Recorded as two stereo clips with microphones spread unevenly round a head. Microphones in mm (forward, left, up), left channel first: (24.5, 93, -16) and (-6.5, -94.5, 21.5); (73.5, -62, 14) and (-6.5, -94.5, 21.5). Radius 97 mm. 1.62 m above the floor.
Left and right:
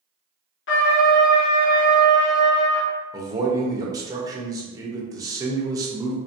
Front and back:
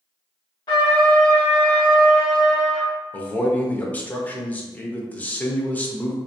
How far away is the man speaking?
About 0.7 m.